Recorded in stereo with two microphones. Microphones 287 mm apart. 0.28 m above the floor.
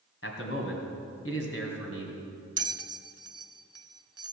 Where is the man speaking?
50° left (ahead or behind), 2 m.